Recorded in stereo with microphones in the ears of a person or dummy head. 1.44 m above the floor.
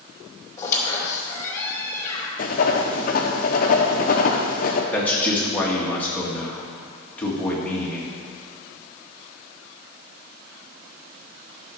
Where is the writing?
45° left (ahead or behind), 0.9 m.